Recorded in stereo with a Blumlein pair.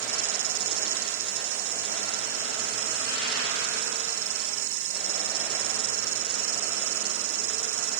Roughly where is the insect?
Ahead right.